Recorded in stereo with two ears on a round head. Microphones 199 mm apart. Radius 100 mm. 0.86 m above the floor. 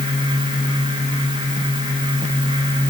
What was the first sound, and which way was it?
Only background noise.